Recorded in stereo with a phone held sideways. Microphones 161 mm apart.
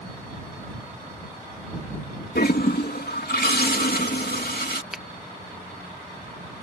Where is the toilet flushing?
75° left (ahead or behind).